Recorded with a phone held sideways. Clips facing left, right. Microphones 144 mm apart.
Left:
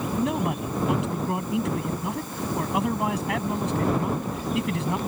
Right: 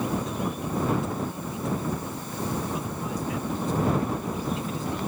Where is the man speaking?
75° left (ahead or behind).